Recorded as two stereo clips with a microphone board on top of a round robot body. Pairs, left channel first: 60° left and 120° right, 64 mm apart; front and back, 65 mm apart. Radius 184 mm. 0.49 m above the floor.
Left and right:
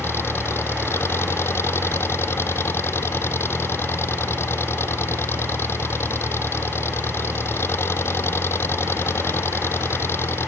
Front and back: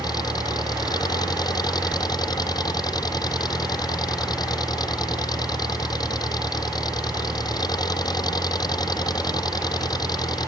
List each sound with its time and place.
0.0 s an engine running: 5° left